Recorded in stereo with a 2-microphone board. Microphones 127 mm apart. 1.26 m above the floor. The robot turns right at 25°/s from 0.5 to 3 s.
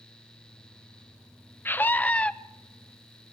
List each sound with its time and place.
1.6 s a scream: 15° left (ahead or behind), 0.5 m; by 2.3 s 10° left (ahead or behind), 0.5 m